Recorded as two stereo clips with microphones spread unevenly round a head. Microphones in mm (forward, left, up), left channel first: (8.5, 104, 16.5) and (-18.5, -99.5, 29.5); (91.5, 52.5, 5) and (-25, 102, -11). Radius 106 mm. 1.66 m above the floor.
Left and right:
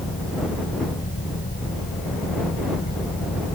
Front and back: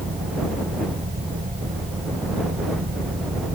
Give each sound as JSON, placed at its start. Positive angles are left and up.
{"t": 0.0, "sound": "a fan", "azimuth_deg": 135}